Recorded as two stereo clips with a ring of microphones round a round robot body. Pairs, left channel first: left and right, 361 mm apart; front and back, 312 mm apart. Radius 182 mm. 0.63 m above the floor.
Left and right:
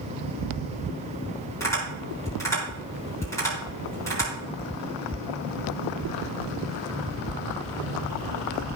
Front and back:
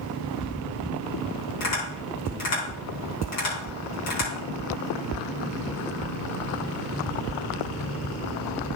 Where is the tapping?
10° left, 5 m.